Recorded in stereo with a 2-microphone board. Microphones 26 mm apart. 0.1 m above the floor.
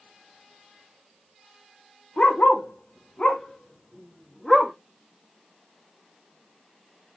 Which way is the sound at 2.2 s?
50° left (ahead or behind).